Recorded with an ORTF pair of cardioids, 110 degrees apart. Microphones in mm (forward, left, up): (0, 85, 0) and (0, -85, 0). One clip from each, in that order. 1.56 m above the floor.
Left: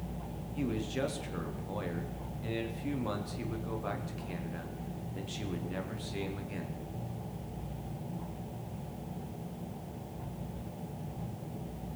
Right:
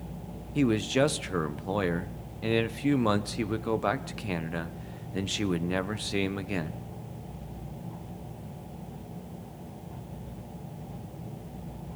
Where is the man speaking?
60° right, 0.7 m.